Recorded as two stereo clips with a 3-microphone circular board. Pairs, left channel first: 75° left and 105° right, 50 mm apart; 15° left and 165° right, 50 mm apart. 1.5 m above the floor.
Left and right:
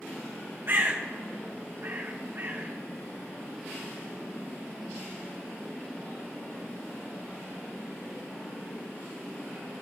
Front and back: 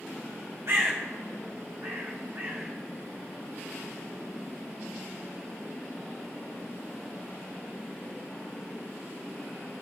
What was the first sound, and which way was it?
A bird, 145° right.